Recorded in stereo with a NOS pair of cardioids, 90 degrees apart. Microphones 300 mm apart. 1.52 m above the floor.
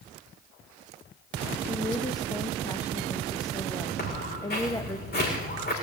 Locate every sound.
1.7 s a woman speaking: 15° left, 1.4 m
4.0 s footsteps: 35° left, 7 m